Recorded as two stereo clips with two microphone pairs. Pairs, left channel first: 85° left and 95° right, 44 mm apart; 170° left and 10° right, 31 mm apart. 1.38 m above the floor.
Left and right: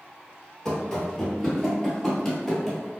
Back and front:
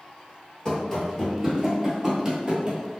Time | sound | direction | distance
0.7 | running footsteps | 155° left | 1.5 m